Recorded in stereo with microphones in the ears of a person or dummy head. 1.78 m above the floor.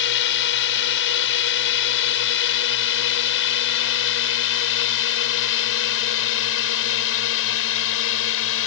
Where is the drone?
65° left (ahead or behind); by 8.7 s 75° left (ahead or behind).